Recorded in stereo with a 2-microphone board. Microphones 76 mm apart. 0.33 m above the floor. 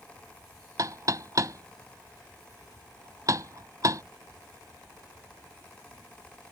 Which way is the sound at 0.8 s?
50° right (ahead or behind).